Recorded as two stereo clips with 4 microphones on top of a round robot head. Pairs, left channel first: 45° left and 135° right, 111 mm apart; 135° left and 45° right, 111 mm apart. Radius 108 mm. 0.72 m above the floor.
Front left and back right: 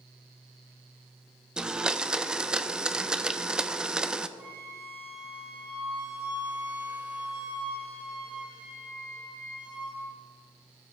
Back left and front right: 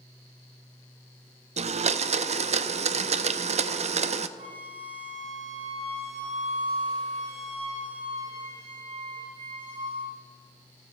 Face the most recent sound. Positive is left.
turn(degrees=-55)